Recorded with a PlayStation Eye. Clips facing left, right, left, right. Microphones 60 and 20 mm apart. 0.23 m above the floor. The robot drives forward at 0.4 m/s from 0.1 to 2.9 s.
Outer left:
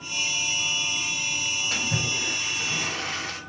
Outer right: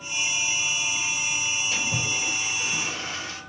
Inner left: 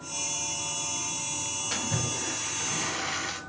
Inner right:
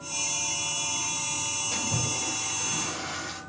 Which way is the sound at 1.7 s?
65° left (ahead or behind).